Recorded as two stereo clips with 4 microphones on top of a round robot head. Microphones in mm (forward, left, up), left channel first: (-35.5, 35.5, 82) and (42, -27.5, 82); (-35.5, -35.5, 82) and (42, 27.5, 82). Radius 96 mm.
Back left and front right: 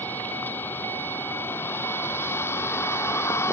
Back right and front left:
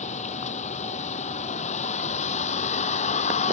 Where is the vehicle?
145° right; by 3.5 s 150° right.